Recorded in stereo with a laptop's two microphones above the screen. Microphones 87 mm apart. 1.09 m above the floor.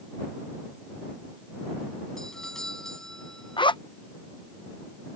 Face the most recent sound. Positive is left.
turn(degrees=70)  # may be behind; listen again after turning